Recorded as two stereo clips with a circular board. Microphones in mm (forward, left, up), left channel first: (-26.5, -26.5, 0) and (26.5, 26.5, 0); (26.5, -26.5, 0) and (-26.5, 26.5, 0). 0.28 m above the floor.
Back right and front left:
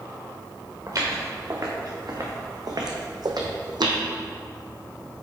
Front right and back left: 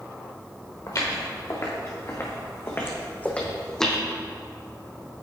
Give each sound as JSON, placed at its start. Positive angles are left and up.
{"t": 0.9, "sound": "footsteps", "azimuth_deg": -5, "distance_m": 2.0}